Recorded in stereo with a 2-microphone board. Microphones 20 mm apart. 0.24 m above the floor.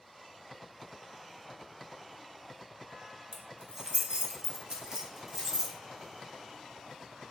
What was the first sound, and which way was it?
Keys jangling, 30° right (ahead or behind).